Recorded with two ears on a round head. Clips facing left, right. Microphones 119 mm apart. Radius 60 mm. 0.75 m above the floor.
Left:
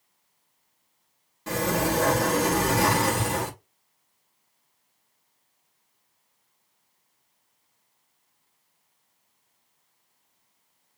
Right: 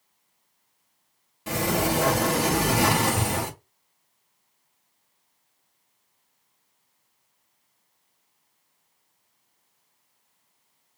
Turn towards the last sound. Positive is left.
turn(degrees=-15)  # may be behind; listen again after turning